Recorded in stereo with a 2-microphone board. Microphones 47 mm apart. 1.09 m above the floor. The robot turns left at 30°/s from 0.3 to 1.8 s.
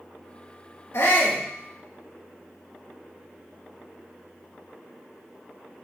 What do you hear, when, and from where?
0.9 s a shout: 75° left (ahead or behind), 1.8 m; by 1.4 s 70° left (ahead or behind), 1.8 m